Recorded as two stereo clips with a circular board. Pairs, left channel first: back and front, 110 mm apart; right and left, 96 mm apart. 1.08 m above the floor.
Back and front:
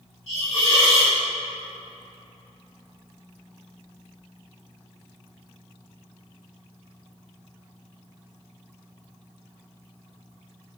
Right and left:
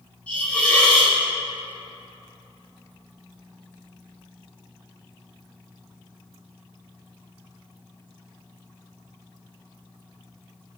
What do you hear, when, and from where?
0.3 s a hiss: 165° right, 3.5 m